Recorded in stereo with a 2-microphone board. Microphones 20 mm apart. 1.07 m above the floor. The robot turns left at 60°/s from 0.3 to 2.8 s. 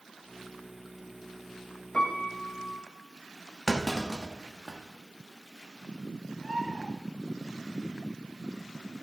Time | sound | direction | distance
1.9 | a piano | 125° left | 1.8 m
3.7 | a clunk | 5° left (ahead or behind) | 1.2 m
6.4 | a bird | 55° right (ahead or behind) | 2.5 m